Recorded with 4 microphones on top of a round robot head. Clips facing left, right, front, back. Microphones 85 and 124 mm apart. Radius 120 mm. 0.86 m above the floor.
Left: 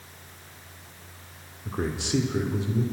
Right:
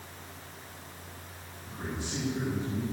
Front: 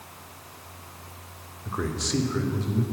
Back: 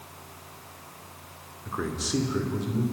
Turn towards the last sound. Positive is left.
turn(degrees=105)